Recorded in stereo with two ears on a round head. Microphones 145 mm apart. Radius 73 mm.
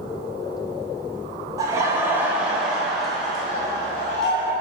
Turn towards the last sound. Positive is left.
turn(degrees=5)  # may be behind; listen again after turning